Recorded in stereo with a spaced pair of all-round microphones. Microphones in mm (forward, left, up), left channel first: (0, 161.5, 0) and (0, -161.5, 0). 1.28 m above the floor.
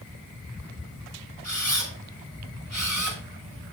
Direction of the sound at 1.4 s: 55° left (ahead or behind).